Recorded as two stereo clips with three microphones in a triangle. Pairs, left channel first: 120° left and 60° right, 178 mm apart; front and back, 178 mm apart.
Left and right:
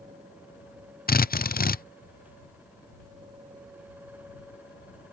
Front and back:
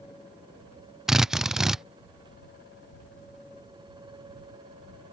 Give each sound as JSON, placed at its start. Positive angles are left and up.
{"t": 1.1, "sound": "a drill", "azimuth_deg": 95}